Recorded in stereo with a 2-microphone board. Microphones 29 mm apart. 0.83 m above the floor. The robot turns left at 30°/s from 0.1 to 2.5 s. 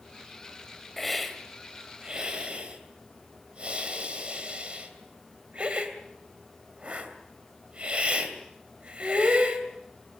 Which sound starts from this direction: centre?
A hiss, at 1.0 s.